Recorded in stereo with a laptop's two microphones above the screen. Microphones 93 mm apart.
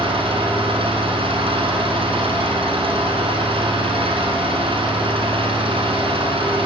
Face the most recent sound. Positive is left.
turn(degrees=-85)